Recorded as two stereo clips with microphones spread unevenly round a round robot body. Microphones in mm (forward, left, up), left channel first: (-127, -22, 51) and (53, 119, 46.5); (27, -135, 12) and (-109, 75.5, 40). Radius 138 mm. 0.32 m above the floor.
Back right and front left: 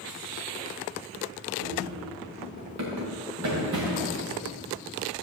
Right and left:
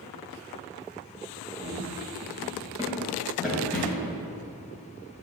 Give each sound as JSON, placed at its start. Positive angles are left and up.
{"t": 1.6, "sound": "running footsteps", "azimuth_deg": 60, "distance_m": 3.5}